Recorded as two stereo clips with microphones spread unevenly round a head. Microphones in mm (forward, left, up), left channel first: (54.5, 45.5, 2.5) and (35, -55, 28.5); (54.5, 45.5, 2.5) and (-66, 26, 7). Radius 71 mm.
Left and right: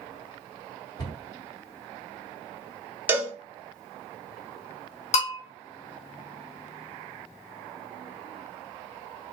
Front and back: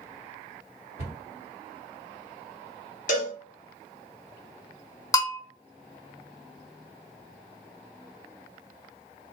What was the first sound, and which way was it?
A cupboard door, 35° left.